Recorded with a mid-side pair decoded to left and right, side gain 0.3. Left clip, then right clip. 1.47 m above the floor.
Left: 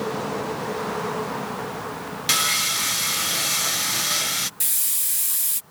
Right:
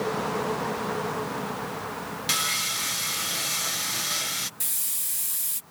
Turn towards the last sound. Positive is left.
turn(degrees=50)